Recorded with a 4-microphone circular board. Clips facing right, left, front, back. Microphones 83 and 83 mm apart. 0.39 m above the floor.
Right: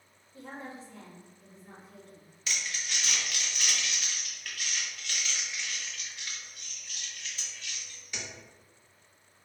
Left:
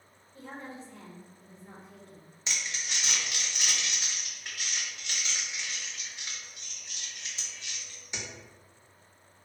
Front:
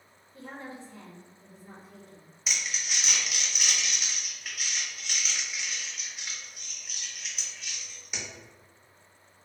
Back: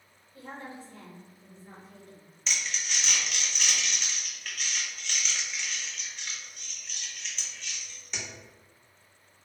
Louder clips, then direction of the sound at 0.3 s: Even, even; 25° right.